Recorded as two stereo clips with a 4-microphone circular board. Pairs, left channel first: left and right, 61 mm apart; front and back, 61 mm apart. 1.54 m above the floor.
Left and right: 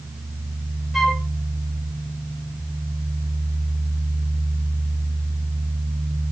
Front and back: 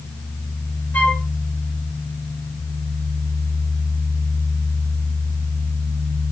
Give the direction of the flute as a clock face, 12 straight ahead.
12 o'clock.